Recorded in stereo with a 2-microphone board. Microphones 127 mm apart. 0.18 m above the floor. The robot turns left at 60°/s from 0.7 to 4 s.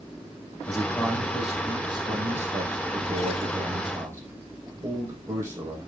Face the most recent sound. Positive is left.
turn(degrees=-155)